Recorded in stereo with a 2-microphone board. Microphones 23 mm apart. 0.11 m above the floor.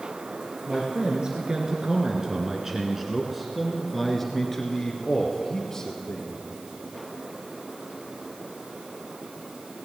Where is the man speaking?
40° right (ahead or behind), 2 m; by 6.3 s 30° left (ahead or behind), 3 m.